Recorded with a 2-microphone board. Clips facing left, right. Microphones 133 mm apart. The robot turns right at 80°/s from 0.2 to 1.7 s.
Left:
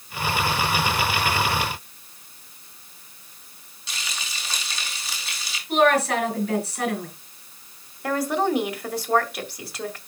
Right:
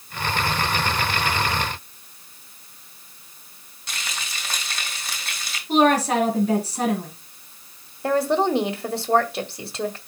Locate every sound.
3.9 s frying: 55° right (ahead or behind), 3.5 m
5.7 s a woman speaking: 35° right (ahead or behind), 5 m
8.0 s a woman speaking: 25° right (ahead or behind), 1.8 m